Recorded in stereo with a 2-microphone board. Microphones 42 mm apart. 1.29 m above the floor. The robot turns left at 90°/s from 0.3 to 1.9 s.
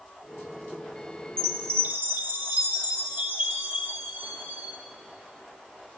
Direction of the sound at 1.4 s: 75° right.